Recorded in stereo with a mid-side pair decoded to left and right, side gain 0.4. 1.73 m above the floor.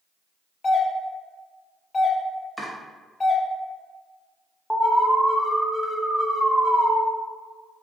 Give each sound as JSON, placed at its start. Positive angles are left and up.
{"t": 0.6, "sound": "a doorbell", "azimuth_deg": 40, "distance_m": 1.0}
{"t": 2.6, "sound": "chopping", "azimuth_deg": -10, "distance_m": 1.5}
{"t": 4.7, "sound": "an alarm", "azimuth_deg": 15, "distance_m": 0.8}